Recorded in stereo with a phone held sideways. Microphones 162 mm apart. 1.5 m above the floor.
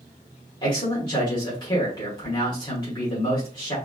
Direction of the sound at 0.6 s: 25° left (ahead or behind).